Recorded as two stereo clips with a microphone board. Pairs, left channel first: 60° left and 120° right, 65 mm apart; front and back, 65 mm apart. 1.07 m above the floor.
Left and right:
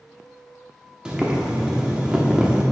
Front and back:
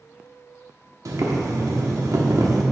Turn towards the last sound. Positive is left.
turn(degrees=165)